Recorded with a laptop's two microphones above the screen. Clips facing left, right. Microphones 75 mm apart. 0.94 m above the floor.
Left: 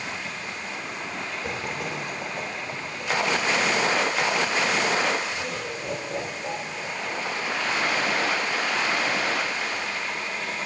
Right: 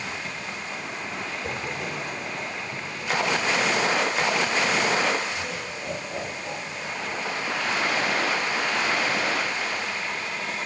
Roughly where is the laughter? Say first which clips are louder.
Left 1 dB; centre.